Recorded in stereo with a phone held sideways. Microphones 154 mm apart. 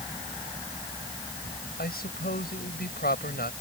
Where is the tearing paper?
No tearing paper in this recording.